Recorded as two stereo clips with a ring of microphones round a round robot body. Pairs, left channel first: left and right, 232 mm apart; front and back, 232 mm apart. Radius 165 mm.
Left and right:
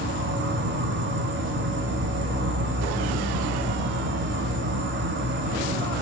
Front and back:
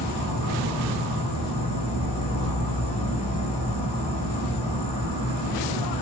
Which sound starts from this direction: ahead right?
An insect, at 0.0 s.